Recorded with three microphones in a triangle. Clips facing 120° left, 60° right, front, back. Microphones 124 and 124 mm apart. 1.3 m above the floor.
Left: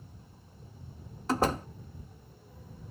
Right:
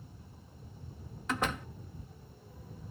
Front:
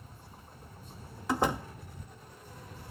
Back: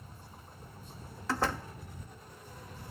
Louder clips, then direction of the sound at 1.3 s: Left 6 dB, front 3 dB; 70° left.